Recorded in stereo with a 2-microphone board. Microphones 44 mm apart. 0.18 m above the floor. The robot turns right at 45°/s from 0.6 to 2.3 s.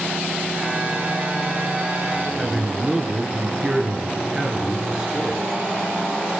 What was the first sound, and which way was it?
A man speaking, 15° right (ahead or behind).